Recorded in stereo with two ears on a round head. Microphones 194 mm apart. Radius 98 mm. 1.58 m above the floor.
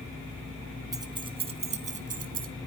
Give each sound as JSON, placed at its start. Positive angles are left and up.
{"t": 0.9, "sound": "keys jangling", "side_deg": -20, "distance_m": 1.6}